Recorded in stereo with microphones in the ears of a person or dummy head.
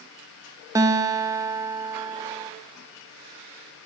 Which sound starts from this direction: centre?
A guitar, at 0.8 s.